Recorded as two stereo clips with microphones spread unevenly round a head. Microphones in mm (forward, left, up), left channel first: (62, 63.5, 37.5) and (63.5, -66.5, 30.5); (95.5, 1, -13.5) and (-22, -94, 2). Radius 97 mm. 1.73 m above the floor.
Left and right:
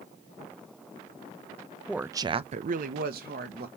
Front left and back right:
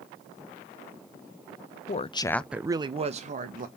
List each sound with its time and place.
1.9 s a woman speaking: 5° right, 0.6 m; by 3.7 s 110° right, 1.0 m